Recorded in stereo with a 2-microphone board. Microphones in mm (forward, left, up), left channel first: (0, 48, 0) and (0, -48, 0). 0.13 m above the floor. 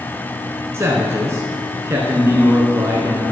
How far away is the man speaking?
About 1.6 m.